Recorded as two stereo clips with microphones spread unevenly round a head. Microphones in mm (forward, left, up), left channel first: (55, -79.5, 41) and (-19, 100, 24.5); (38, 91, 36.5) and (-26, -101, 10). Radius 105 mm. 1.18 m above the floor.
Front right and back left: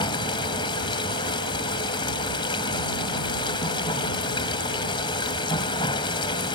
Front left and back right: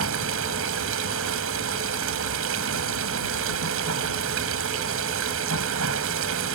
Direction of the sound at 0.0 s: 135° right.